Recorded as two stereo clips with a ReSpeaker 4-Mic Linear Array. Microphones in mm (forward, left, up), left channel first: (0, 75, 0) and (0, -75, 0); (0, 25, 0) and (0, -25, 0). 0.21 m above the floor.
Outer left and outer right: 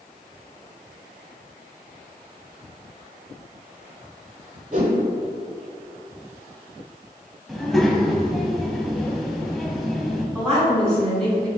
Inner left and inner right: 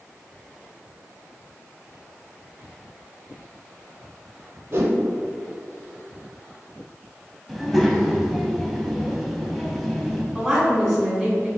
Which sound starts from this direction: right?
A whoosh, at 4.7 s.